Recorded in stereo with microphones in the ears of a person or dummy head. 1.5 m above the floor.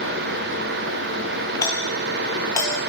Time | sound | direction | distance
1.6 | a doorbell | 20° left (ahead or behind) | 3.5 m